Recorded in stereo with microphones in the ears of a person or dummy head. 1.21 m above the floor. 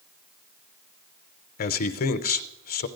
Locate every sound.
1.6 s a man speaking: 45° left (ahead or behind), 0.6 m